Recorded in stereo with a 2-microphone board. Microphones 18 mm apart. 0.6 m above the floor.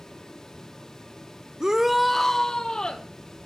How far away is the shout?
About 0.8 m.